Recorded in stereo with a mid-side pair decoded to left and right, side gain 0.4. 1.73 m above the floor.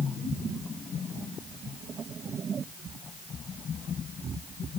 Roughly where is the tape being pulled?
No tape being pulled in this recording.